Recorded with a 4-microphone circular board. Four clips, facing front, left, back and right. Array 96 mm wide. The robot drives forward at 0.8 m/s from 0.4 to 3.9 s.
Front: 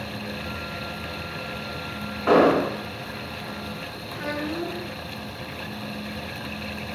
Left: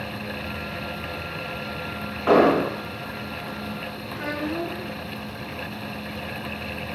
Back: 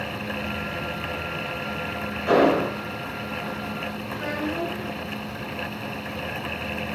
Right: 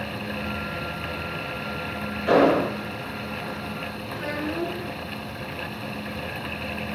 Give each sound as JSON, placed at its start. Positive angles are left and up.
{"t": 2.3, "sound": "an explosion", "azimuth_deg": 55, "distance_m": 5.5}
{"t": 4.1, "sound": "a child speaking", "azimuth_deg": 115, "distance_m": 6.5}